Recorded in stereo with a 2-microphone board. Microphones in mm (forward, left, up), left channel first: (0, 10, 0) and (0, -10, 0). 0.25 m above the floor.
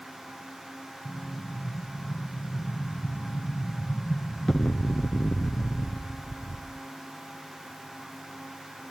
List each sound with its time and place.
1.1 s an explosion: 35° left (ahead or behind), 0.9 m